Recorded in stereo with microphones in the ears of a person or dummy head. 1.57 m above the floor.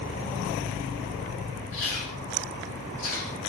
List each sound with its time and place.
1.7 s chewing: 75° left (ahead or behind), 5 m